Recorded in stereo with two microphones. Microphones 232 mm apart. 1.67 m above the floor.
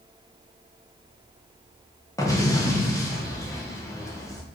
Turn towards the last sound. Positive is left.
turn(degrees=15)  # may be behind; listen again after turning